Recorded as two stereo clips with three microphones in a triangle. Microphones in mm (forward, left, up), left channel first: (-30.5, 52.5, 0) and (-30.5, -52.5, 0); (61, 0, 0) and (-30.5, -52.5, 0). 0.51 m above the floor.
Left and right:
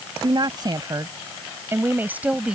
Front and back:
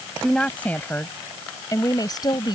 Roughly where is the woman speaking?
Ahead right.